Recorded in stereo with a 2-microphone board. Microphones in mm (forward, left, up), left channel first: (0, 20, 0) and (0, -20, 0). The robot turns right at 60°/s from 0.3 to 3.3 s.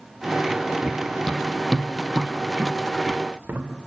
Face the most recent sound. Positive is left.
turn(degrees=-50)  # may be behind; listen again after turning